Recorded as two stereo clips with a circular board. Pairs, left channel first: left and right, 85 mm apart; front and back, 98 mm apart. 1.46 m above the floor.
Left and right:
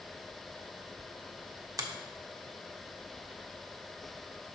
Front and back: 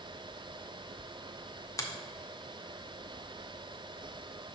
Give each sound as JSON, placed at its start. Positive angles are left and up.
{"t": 1.8, "sound": "a finger snap", "azimuth_deg": -50, "distance_m": 0.8}